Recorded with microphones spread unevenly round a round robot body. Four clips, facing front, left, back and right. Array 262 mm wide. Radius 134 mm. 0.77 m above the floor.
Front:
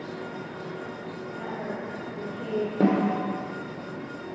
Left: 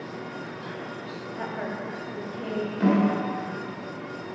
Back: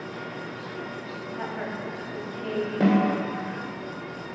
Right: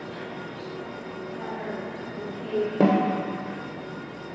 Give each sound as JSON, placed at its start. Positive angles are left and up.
{"t": 1.4, "sound": "a woman speaking", "azimuth_deg": 110, "distance_m": 4.5}
{"t": 2.8, "sound": "a snare drum", "azimuth_deg": -70, "distance_m": 2.0}